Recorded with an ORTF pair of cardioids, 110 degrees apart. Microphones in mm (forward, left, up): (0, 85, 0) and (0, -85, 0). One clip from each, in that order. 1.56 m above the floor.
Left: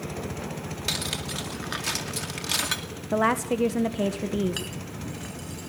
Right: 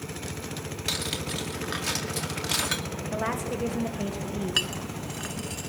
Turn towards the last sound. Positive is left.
turn(degrees=-35)